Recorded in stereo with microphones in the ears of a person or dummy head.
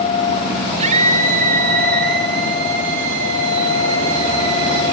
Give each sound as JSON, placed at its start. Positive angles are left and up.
{"t": 0.8, "sound": "a scream", "side_deg": -35, "distance_m": 4.0}